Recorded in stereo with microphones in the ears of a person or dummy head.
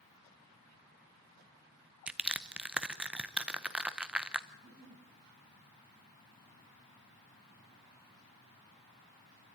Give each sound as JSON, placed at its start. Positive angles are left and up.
{"t": 2.1, "sound": "crushing", "side_deg": -5, "distance_m": 0.7}
{"t": 4.5, "sound": "a giggle", "side_deg": -40, "distance_m": 5.0}